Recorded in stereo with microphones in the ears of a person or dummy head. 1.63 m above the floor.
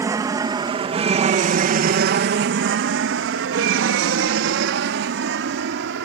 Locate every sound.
0.0 s an aircraft: 15° right (ahead or behind); by 6.1 s 65° right (ahead or behind)